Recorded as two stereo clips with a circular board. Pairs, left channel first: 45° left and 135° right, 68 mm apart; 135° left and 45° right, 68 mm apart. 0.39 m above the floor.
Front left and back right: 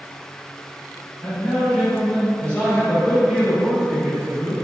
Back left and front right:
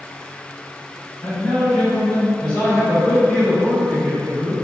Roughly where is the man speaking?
Left.